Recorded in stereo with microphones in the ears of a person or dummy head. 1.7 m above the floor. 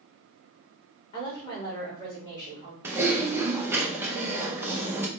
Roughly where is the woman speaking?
Left.